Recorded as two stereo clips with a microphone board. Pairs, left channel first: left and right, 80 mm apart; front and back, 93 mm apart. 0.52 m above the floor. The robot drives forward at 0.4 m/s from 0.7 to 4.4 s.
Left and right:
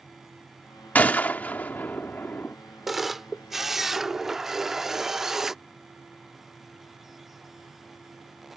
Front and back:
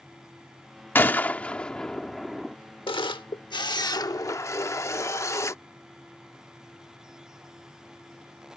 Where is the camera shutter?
5° right; by 5.6 s 10° right.